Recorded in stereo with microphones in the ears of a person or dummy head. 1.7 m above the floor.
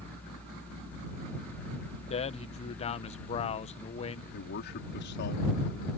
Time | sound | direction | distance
0.0 | a fan | 5° left (ahead or behind) | ?
2.1 | a man speaking | 35° left (ahead or behind) | ?
4.3 | a man speaking | 60° left (ahead or behind) | ?